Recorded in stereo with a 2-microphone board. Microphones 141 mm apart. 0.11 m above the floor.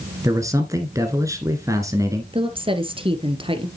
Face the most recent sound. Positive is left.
turn(degrees=-35)  # may be behind; listen again after turning